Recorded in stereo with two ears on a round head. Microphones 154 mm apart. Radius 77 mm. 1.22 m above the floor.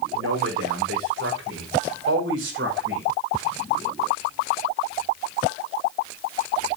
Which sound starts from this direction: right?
A man speaking, at 0.1 s.